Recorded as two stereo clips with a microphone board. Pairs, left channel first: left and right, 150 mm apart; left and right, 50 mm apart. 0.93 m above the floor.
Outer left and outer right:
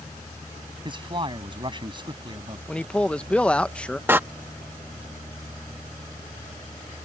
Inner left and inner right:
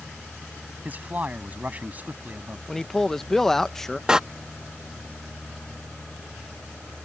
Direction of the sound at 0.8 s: 30° right (ahead or behind).